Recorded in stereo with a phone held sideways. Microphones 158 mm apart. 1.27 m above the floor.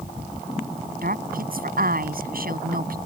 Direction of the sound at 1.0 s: 65° right (ahead or behind).